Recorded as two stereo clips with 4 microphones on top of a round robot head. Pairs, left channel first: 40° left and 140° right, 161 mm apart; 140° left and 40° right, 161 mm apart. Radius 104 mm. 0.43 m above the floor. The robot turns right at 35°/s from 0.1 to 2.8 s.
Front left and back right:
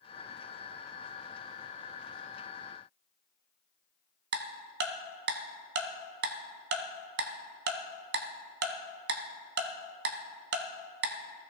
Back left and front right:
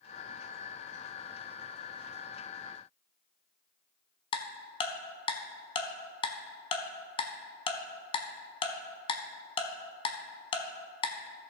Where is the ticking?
160° right, 0.7 m.